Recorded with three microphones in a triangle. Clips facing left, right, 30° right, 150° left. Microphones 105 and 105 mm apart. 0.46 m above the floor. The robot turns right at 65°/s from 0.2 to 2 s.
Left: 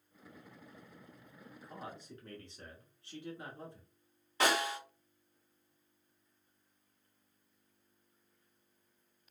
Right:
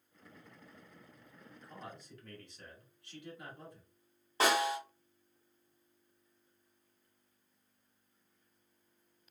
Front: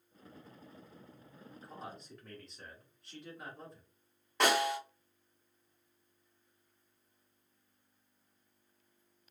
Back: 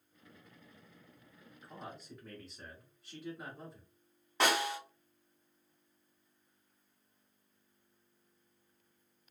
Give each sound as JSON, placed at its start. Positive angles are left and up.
{"t": 1.6, "sound": "a man speaking", "azimuth_deg": 40, "distance_m": 1.1}
{"t": 4.4, "sound": "a snare drum", "azimuth_deg": -125, "distance_m": 1.6}